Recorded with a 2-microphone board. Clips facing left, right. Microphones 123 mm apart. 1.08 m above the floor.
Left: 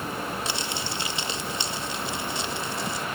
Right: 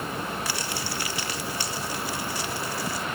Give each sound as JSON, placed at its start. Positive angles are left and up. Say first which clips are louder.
{"t": 0.5, "sound": "crumpling", "louder": "even", "side_deg": 25, "distance_m": 2.0}